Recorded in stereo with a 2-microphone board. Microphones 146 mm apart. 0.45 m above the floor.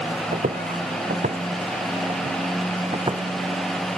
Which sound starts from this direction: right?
Footsteps, at 0.3 s.